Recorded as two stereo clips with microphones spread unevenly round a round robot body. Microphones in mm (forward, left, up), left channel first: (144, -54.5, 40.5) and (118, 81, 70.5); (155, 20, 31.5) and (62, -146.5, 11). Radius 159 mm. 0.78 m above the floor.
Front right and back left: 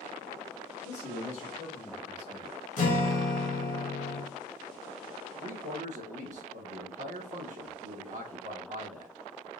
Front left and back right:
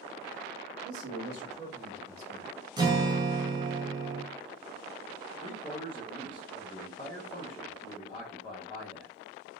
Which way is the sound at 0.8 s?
100° right.